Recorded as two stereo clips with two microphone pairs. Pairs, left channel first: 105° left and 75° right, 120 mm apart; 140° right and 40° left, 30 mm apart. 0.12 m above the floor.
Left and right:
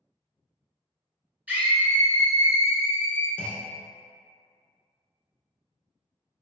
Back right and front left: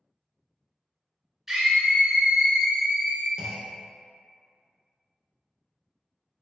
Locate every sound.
1.5 s a scream: 20° right, 1.1 m; by 3.3 s 115° left, 1.4 m
3.4 s a clunk: 55° left, 0.5 m